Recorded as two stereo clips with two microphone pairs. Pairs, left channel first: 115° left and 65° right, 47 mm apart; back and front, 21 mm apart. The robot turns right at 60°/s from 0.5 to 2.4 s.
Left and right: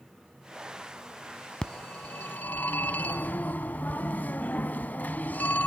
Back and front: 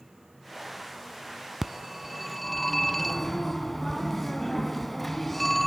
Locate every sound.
1.6 s a phone ringing: 50° left, 0.9 m; by 5.7 s 95° left, 0.9 m